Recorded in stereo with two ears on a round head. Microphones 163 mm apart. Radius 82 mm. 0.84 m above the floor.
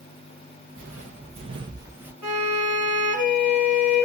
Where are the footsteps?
45° right (ahead or behind), 1.1 m; by 2.1 s 10° right (ahead or behind), 0.8 m.